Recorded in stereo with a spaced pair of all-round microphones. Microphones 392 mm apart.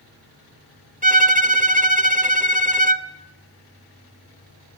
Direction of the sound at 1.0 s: 20° right (ahead or behind).